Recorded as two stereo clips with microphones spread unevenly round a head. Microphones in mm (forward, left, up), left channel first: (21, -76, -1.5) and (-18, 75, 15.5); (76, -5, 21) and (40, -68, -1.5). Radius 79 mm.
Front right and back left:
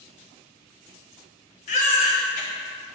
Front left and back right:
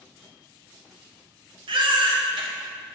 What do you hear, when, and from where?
1.7 s a baby crying: 125° right, 1.4 m